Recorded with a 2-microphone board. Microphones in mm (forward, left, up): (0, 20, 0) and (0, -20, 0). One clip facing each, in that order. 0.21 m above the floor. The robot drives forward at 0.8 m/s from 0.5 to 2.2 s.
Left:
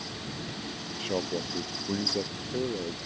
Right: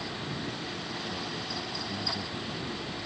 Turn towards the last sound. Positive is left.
turn(degrees=75)  # may be behind; listen again after turning